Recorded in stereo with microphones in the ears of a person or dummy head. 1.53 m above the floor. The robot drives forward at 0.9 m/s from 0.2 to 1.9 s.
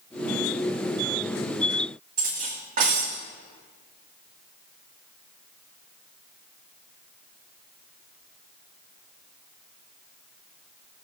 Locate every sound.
2.2 s cutlery clinking: 50° right (ahead or behind), 1.9 m